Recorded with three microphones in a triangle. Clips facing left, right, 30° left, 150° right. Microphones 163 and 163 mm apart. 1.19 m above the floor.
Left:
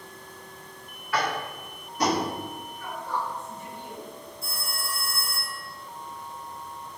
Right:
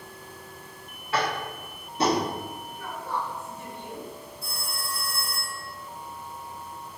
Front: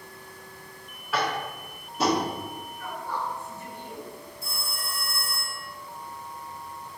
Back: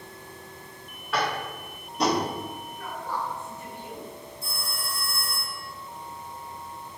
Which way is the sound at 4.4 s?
110° right.